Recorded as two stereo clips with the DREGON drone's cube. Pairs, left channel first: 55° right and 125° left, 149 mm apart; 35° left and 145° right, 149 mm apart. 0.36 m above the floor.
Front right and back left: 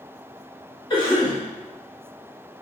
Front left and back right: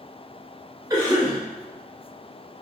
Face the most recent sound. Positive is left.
turn(degrees=-95)